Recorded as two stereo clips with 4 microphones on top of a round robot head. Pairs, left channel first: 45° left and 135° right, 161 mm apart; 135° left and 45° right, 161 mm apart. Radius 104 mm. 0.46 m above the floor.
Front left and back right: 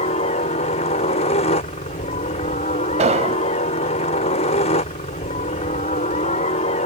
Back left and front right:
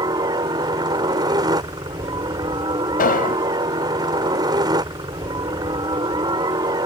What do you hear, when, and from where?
0.0 s a helicopter: 15° left
3.0 s an explosion: 175° left